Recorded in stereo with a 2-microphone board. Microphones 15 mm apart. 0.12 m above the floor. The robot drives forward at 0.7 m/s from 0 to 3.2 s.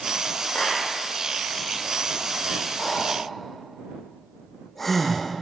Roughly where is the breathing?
Left.